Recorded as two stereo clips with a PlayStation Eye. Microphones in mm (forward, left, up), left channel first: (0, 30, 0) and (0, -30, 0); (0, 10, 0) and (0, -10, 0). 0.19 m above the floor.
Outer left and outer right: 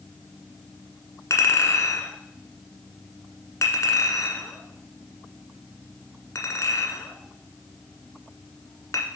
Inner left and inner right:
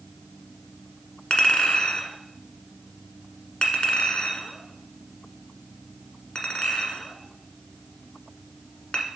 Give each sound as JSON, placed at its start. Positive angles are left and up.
{"t": 1.3, "sound": "a clink", "side_deg": 55, "distance_m": 1.6}